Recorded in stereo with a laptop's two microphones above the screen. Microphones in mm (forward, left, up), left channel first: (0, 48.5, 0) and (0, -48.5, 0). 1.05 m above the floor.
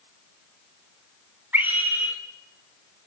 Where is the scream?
20° right (ahead or behind), 4 m.